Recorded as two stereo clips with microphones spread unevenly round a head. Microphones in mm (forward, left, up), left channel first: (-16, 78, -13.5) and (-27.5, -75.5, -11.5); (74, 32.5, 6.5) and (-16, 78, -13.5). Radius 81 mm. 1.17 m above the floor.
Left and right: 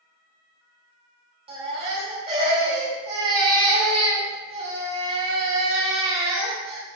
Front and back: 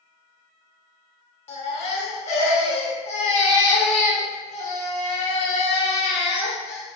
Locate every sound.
1.5 s a baby crying: 35° right, 1.7 m